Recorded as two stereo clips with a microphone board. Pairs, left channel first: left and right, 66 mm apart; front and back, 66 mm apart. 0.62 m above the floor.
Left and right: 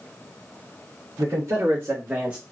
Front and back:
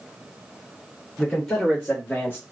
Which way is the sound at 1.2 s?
70° right.